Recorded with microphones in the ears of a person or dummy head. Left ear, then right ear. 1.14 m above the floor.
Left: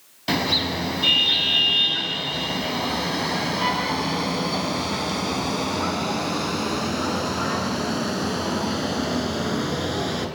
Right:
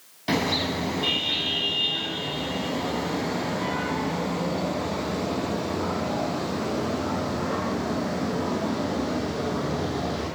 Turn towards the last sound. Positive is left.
turn(degrees=75)  # may be behind; listen again after turning